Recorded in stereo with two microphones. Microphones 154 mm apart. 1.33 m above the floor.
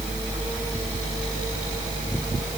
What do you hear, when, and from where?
Only background noise.